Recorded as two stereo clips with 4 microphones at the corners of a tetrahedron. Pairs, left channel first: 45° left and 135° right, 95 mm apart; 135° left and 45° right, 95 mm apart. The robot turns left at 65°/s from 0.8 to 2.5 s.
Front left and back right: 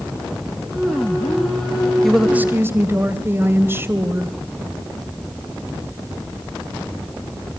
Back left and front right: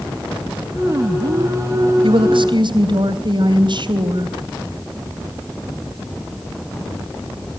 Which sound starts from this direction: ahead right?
A woman speaking, at 2.0 s.